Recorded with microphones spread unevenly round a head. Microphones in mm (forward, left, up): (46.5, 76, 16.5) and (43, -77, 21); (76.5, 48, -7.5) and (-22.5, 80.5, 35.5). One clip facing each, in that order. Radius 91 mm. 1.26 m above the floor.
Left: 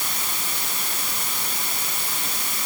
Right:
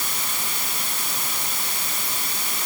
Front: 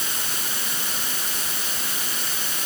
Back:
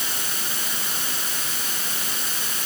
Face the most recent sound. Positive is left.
No sound to turn to.